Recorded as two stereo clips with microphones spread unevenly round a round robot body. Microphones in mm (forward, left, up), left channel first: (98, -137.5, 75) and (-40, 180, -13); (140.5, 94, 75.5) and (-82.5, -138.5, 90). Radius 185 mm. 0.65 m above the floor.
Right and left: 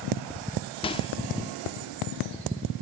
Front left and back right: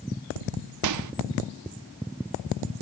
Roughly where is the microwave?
Behind right.